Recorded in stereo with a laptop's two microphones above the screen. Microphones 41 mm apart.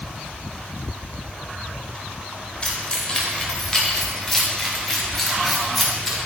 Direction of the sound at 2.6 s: 25° left (ahead or behind).